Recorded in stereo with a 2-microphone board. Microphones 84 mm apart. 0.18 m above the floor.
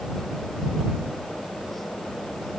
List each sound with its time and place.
Only background noise.